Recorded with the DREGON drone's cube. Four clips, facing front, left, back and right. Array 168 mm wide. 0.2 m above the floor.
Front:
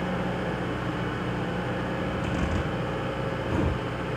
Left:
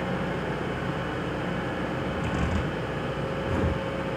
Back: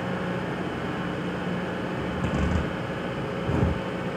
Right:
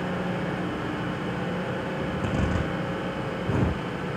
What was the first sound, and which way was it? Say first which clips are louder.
A zipper: right 1 dB, back 1 dB; 135° right.